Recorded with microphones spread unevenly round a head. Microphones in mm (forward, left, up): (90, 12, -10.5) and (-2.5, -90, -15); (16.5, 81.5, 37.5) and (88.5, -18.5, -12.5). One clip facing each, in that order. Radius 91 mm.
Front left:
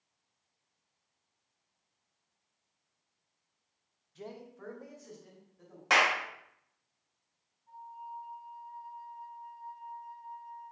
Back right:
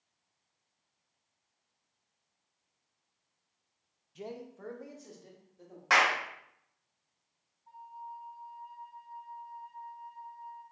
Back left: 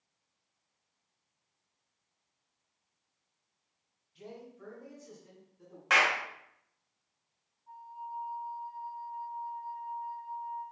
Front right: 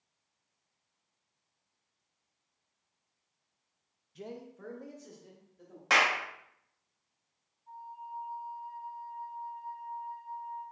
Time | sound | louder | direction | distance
4.2 | a man speaking | back right 3 dB, front right 3 dB | 60° right | 0.5 m
5.9 | a clap | even, even | 20° right | 0.9 m
7.7 | a flute | even, back left 1 dB | 130° right | 2 m